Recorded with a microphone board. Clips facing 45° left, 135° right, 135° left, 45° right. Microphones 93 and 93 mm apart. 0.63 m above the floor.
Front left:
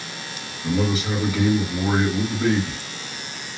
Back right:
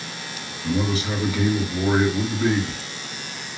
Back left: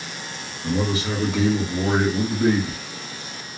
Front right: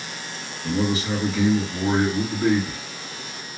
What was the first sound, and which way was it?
A man speaking, 95° left.